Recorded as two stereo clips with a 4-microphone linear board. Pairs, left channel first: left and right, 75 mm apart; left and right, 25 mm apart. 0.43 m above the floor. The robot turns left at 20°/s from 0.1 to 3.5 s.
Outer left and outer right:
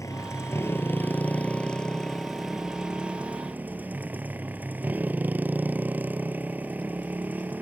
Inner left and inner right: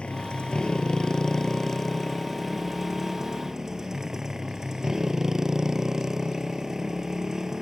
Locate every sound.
0.0 s a motorcycle: 45° left; by 7.6 s 25° right